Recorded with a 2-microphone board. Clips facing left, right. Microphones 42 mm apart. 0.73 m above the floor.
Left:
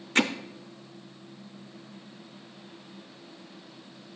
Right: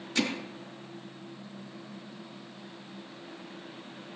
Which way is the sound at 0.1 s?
50° left (ahead or behind).